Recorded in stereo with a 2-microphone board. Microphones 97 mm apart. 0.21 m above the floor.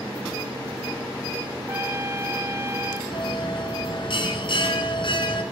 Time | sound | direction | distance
1.7 | a trumpet | 30° right (ahead or behind) | 0.6 m
3.1 | a bell | 60° left (ahead or behind) | 2.5 m